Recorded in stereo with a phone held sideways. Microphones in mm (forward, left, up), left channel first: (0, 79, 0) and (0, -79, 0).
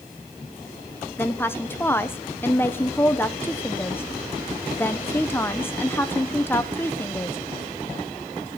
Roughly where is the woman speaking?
Centre.